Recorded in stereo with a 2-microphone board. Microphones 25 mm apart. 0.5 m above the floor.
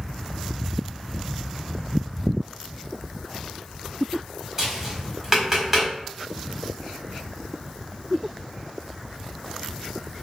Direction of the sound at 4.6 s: 15° right (ahead or behind).